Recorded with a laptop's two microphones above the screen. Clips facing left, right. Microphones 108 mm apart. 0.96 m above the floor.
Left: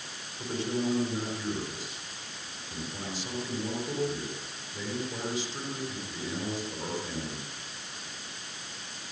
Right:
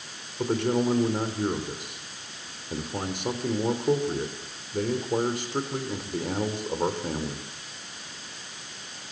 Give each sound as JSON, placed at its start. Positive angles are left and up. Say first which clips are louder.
{"t": 0.4, "sound": "a man speaking", "louder": "right 7 dB", "side_deg": -60, "distance_m": 4.0}